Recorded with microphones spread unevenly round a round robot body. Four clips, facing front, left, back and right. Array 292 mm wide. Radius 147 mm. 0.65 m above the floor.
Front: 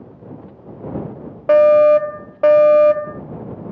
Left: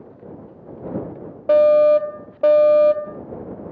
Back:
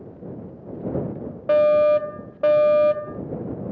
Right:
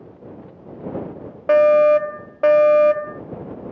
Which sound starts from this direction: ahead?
A fire alarm, at 1.5 s.